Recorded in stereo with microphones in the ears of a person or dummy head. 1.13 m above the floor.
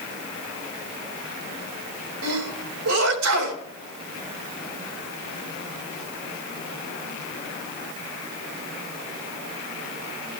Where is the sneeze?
85° right, 3.5 m.